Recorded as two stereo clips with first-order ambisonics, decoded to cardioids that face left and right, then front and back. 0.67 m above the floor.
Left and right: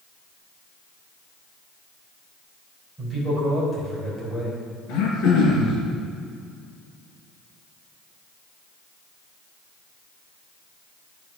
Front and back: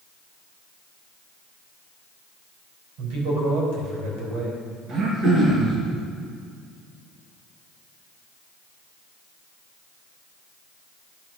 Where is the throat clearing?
125° left, 2.5 m.